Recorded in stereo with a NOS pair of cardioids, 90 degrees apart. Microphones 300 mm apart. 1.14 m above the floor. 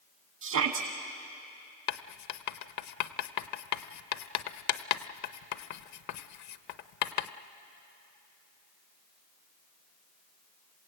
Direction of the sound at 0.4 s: 65° right.